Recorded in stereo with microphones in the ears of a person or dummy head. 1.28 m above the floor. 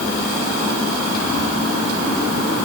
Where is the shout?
I don't hear a shout.